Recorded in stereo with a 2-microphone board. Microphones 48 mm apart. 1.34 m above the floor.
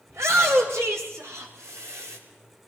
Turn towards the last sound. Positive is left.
turn(degrees=-85)